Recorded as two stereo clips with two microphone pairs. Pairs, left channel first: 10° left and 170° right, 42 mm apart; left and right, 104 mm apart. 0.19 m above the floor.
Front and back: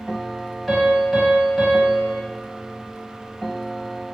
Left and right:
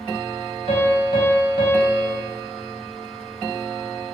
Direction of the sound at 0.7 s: 90° left.